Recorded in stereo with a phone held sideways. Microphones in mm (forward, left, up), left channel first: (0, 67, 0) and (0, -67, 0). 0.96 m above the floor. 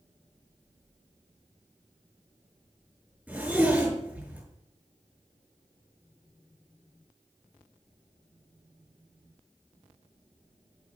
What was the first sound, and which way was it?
A zipper, 10° right (ahead or behind).